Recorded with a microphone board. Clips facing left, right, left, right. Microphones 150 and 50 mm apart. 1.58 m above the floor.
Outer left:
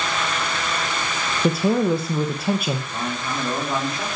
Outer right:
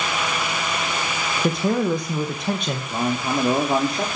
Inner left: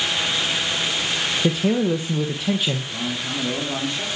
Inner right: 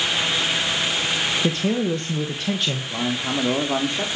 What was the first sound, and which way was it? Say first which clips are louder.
A man speaking: outer left 2 dB, inner left 4 dB; 5° left (ahead or behind).